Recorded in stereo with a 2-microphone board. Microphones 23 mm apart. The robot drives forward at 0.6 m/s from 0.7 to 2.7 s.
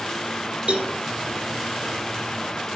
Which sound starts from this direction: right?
A cowbell, at 0.7 s.